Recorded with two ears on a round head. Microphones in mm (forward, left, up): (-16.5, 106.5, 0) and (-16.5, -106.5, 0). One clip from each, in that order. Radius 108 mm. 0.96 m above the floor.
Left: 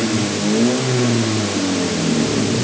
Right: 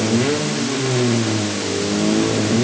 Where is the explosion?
I don't hear an explosion.